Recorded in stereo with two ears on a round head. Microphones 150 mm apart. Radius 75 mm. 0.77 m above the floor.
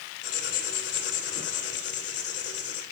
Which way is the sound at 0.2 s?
70° left (ahead or behind).